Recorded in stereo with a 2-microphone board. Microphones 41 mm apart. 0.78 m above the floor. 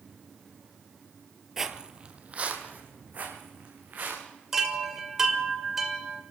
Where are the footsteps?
5° right (ahead or behind), 1.0 m; by 4.2 s 45° right (ahead or behind), 4.5 m.